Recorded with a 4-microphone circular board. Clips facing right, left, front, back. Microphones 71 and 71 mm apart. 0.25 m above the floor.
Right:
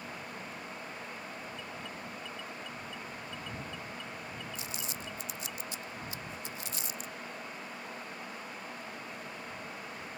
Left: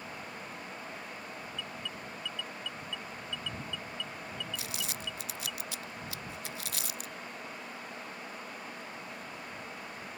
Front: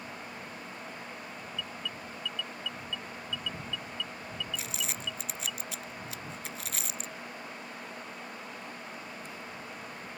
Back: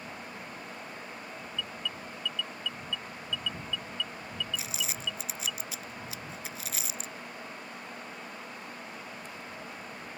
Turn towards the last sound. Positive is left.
turn(degrees=90)